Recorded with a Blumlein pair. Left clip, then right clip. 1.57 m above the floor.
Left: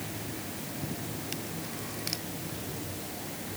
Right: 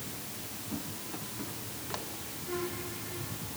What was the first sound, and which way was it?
Only background noise.